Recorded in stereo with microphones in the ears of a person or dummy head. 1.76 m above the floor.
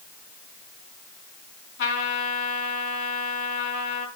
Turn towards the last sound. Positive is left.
turn(degrees=60)  # may be behind; listen again after turning